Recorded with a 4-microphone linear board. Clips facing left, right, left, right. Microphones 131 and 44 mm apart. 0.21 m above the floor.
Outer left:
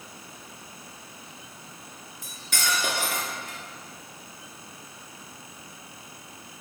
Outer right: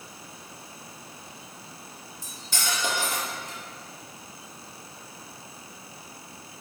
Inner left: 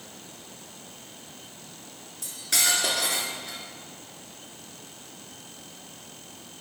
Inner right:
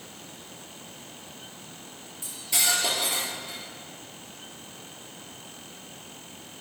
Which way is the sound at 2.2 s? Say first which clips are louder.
Outer left 2 dB, inner left 1 dB; 65° left (ahead or behind).